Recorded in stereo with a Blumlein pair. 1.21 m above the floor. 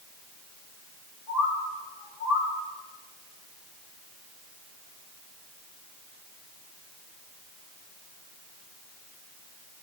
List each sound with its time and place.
1.3 s a bird: 45° left, 2.5 m